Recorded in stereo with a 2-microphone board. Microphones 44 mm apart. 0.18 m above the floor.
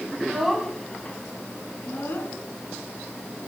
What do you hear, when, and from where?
0.1 s a child speaking: 15° right (ahead or behind), 0.9 m; by 2.3 s 55° left (ahead or behind), 1.5 m